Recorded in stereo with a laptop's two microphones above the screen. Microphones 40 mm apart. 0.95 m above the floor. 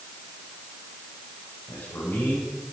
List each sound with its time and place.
1.7 s a man speaking: 80° left, 5 m